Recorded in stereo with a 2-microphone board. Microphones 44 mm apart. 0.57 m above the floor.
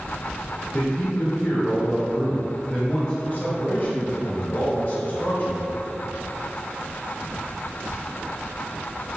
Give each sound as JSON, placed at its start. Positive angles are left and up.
{"t": 0.7, "sound": "a man speaking", "side_deg": 25, "distance_m": 2.0}
{"t": 3.2, "sound": "a man speaking", "side_deg": 40, "distance_m": 2.0}